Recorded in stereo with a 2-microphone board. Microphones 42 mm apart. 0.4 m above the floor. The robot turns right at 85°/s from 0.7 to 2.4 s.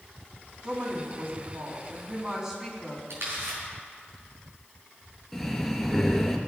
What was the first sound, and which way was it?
A woman speaking, 160° right.